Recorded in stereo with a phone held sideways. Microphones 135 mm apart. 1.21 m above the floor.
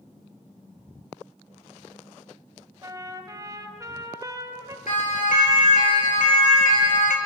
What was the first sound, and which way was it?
A trumpet, 25° right (ahead or behind).